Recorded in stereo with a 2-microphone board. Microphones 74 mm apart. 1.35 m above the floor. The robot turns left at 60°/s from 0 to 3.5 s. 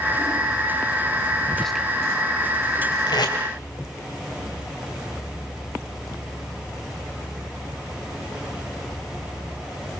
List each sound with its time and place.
1.5 s whispering: 15° left (ahead or behind), 0.9 m; by 1.9 s 5° right (ahead or behind), 0.9 m
3.1 s tape being pulled: 80° left, 3.5 m; by 3.4 s 75° left (ahead or behind), 3.5 m